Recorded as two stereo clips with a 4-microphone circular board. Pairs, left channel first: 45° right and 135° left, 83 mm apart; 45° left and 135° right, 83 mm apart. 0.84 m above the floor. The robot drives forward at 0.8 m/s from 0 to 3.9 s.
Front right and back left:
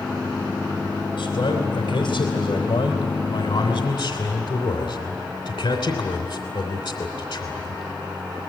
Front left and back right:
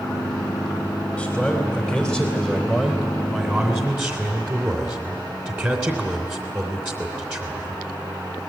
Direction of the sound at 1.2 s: 40° right.